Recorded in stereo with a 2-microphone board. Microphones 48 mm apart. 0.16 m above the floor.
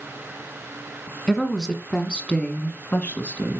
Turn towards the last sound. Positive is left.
turn(degrees=35)  # may be behind; listen again after turning